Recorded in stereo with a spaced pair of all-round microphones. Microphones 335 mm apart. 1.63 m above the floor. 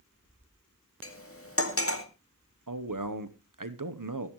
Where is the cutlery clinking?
40° left (ahead or behind), 2.0 m.